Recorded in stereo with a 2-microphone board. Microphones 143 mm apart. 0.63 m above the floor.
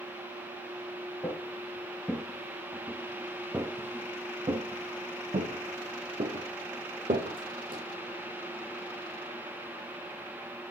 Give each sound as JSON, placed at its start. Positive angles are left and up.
{"t": 1.2, "sound": "footsteps", "side_deg": 15, "distance_m": 1.9}